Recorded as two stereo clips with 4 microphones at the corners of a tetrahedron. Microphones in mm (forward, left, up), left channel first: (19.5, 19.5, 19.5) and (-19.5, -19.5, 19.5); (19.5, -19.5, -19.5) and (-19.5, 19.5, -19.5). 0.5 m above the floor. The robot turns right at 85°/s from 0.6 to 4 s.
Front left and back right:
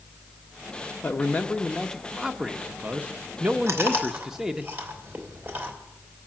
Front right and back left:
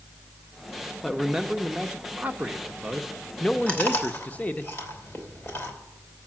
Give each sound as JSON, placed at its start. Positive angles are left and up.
{"t": 1.0, "sound": "a man speaking", "azimuth_deg": 45, "distance_m": 0.8}
{"t": 3.7, "sound": "chewing", "azimuth_deg": -110, "distance_m": 3.0}